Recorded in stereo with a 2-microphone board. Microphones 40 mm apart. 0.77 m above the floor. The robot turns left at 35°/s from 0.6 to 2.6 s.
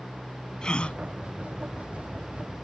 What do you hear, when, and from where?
0.6 s a gasp: 20° left (ahead or behind); by 1.0 s 35° left (ahead or behind)